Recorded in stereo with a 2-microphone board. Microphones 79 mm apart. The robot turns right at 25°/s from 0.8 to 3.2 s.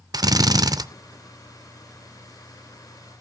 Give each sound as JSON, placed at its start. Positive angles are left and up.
{"t": 0.1, "sound": "a drill", "side_deg": -55, "distance_m": 0.5}